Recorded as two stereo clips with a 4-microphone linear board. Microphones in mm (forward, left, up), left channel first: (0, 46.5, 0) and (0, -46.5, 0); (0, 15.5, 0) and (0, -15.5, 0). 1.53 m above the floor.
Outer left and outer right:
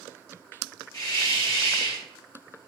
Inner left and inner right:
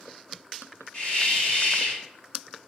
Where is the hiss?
40° left (ahead or behind), 2.5 m.